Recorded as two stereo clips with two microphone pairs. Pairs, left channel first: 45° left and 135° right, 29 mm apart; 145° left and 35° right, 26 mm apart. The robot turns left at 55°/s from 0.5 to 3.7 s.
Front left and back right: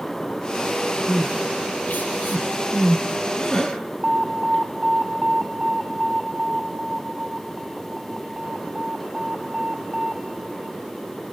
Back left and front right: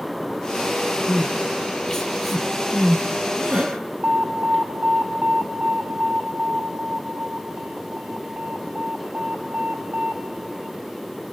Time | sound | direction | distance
1.1 | crying | 115° left | 6 m
4.0 | an alarm | 70° right | 3 m